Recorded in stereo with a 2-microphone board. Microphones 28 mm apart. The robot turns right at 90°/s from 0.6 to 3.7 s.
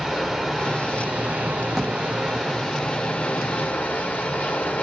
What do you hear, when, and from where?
0.0 s running water: 175° right, 1.5 m; by 4.8 s 105° left, 1.5 m
1.7 s a drawer: centre (ahead or behind), 1.1 m; by 2.0 s 15° left (ahead or behind), 1.1 m